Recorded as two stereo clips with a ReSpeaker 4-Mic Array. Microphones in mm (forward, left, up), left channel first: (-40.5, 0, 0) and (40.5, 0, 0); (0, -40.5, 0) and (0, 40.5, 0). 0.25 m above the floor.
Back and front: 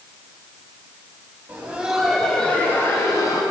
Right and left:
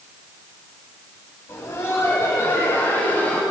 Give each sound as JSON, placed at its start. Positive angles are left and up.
{"t": 1.5, "sound": "laughter", "azimuth_deg": -55, "distance_m": 1.4}